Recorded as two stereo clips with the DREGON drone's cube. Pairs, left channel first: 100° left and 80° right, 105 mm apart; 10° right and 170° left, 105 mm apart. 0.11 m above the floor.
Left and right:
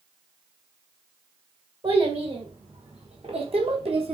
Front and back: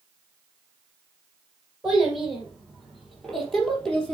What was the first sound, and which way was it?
A child speaking, 105° right.